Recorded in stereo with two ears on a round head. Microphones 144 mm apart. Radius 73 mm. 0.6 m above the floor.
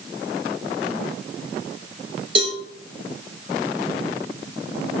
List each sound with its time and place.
2.4 s a cowbell: 30° right (ahead or behind), 3.5 m